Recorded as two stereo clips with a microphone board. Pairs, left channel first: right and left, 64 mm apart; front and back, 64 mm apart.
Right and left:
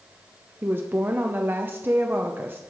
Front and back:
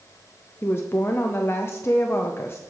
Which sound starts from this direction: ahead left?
A woman speaking, at 0.6 s.